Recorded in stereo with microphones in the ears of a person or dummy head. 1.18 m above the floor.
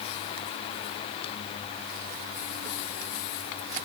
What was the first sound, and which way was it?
Only background noise.